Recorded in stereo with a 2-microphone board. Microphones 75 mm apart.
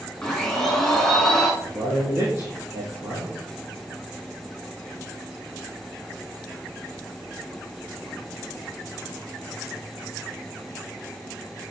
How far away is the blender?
About 3.5 m.